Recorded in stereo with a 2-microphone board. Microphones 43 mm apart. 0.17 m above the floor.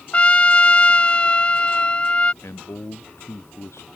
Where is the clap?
I don't hear a clap.